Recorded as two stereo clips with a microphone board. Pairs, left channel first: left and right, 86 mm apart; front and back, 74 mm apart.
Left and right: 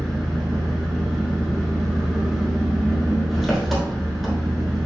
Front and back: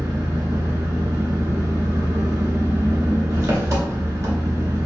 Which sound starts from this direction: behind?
An engine running, at 0.0 s.